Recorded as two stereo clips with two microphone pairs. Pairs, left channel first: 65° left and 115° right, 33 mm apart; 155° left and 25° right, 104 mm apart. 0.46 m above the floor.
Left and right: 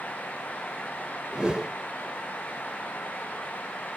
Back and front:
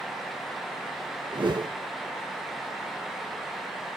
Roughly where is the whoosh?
Ahead right.